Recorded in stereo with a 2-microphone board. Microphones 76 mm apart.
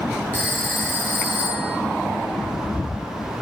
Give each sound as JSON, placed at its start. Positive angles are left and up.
{"t": 0.3, "sound": "a phone ringing", "side_deg": 25, "distance_m": 3.5}